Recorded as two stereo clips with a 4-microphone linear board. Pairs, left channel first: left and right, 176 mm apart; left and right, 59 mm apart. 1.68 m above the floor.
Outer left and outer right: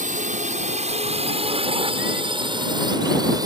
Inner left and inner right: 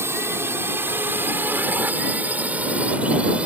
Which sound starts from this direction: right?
A drone, at 0.0 s.